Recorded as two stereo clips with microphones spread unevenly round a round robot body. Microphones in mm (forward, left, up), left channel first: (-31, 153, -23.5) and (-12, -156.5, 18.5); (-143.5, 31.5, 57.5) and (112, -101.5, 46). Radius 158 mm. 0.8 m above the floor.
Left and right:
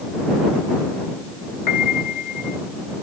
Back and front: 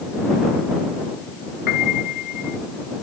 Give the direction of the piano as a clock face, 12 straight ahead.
8 o'clock.